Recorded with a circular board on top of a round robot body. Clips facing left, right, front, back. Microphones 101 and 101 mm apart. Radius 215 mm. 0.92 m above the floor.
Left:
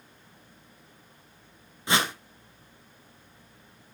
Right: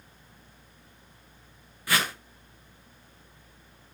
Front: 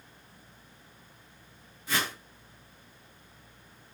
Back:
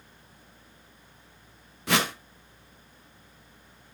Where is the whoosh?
155° left, 1.2 m.